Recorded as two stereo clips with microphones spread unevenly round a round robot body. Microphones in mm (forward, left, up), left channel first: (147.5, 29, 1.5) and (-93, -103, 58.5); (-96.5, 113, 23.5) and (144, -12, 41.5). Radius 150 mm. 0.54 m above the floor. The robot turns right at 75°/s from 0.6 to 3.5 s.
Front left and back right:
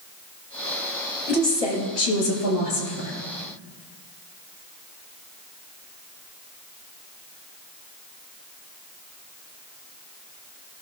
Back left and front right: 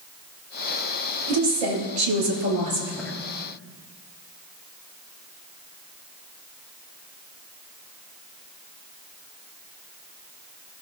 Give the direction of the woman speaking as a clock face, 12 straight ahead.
2 o'clock.